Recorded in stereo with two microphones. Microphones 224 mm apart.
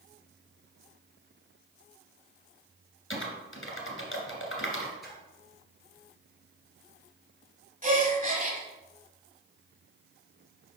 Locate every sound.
3.1 s typing on a keyboard: 60° left (ahead or behind), 1.9 m
5.0 s a splash: centre (ahead or behind), 2.5 m
7.8 s a gasp: 35° right (ahead or behind), 1.5 m